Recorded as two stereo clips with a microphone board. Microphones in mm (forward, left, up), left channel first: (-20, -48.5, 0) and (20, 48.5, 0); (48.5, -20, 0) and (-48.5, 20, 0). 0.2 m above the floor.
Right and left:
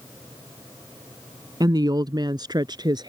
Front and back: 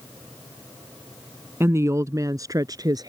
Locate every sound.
1.6 s a woman speaking: 100° left; by 3.1 s 110° left